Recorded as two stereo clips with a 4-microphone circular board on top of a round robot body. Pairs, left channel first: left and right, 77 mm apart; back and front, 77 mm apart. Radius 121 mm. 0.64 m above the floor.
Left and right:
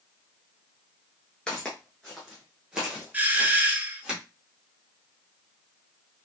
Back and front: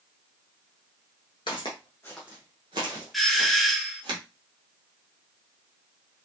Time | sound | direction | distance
1.5 | footsteps | 170° left | 0.7 m
3.1 | a doorbell | 90° right | 1.0 m